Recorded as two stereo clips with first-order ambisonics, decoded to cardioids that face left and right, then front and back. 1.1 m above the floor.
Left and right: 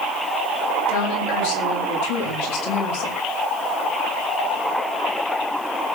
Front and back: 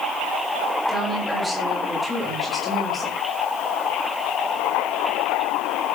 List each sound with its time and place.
0.9 s a woman speaking: 85° left, 8 m; by 3.2 s 95° left, 7 m